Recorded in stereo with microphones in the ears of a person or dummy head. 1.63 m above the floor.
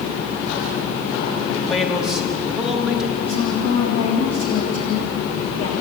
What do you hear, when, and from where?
1.7 s a man speaking: centre (ahead or behind), 4 m
3.2 s a woman speaking: 35° left (ahead or behind), 3.5 m